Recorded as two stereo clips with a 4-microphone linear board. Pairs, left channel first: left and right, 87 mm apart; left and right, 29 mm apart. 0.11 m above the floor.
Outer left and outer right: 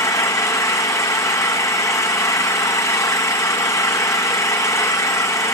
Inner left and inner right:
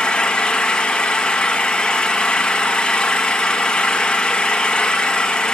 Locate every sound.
0.0 s an engine running: 35° left (ahead or behind), 2.5 m